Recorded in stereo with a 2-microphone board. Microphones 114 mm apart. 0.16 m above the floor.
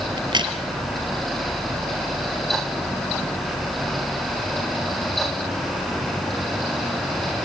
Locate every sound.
0.2 s a crack: 40° right (ahead or behind), 3 m